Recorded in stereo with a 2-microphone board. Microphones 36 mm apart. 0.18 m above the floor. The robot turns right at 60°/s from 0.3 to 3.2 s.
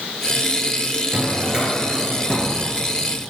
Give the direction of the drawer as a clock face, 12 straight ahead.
2 o'clock.